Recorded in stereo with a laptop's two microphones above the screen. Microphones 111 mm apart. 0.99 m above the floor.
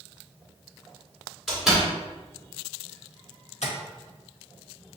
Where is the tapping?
80° left, 1.2 m.